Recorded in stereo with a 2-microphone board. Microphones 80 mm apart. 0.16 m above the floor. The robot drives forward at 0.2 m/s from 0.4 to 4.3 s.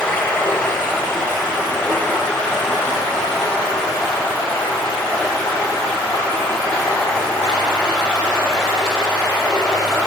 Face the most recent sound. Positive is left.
turn(degrees=5)  # may be behind; listen again after turning